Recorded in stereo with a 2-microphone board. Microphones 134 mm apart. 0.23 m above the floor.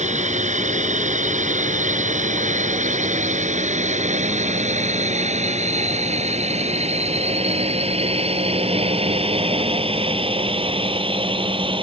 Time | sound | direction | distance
0.0 | a drone | 60° right (ahead or behind) | ?